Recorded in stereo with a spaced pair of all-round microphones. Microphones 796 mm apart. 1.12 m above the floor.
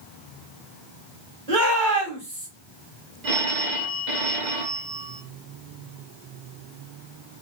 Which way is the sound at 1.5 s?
70° right (ahead or behind).